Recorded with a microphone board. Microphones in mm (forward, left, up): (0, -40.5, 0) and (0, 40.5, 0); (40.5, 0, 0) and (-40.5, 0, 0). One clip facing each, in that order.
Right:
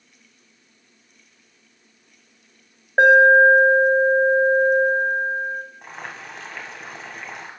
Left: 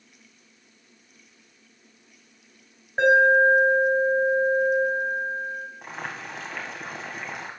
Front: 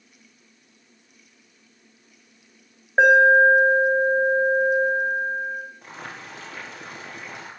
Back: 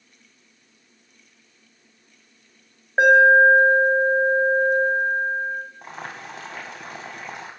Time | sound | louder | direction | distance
3.0 | an alarm | right 5 dB, back 1 dB | 90° right | 3.5 m
5.8 | boiling | left 1 dB, back 3 dB | straight behind | 1.8 m